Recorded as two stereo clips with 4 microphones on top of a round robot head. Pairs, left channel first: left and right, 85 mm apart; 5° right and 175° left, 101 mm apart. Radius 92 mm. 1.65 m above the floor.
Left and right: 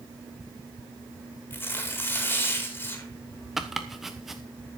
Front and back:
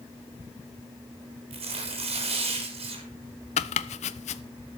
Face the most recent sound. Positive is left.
turn(degrees=0)